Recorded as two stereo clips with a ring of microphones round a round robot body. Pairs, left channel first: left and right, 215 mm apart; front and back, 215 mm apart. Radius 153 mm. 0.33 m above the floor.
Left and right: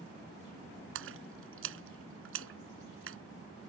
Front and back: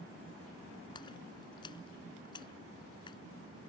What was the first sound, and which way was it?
A splash, 75° right.